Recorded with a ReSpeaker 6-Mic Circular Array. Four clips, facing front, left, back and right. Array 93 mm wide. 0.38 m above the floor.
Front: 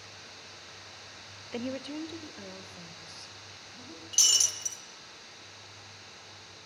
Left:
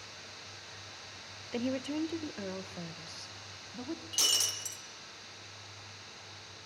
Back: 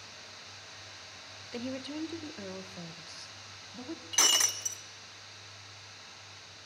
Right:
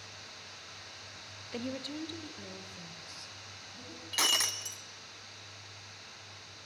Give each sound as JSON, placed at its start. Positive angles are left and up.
{"t": 1.5, "sound": "a woman speaking", "azimuth_deg": 35, "distance_m": 0.9}
{"t": 4.1, "sound": "breaking glass", "azimuth_deg": -140, "distance_m": 1.7}